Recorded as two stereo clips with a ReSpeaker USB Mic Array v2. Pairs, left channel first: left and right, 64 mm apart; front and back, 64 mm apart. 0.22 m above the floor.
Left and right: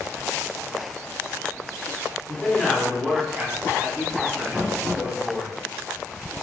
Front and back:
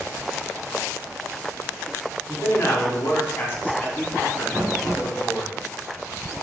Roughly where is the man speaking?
Ahead left.